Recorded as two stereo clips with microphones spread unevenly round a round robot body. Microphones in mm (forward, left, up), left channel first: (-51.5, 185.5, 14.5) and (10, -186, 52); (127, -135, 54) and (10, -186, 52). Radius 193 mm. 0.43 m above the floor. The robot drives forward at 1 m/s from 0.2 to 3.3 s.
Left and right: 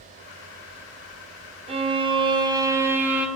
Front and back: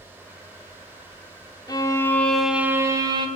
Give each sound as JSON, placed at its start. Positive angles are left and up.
{"t": 1.7, "sound": "a violin", "azimuth_deg": -10, "distance_m": 1.3}